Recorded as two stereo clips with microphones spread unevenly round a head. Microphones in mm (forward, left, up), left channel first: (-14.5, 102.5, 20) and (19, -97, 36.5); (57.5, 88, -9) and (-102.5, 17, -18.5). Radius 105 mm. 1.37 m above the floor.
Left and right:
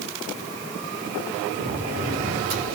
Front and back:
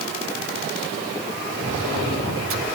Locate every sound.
1.6 s a sliding door: 130° right, 5 m